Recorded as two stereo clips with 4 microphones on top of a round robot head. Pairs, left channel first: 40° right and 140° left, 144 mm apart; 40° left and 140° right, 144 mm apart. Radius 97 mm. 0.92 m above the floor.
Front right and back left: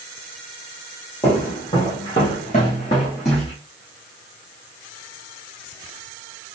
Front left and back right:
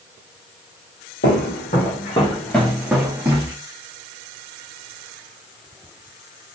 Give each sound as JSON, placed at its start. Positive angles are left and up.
{"t": 1.2, "sound": "footsteps", "azimuth_deg": 35, "distance_m": 1.4}